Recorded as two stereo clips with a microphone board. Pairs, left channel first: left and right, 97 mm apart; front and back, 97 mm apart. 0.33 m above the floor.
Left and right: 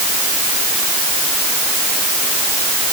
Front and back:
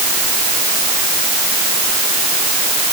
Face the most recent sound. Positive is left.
No sound to turn to.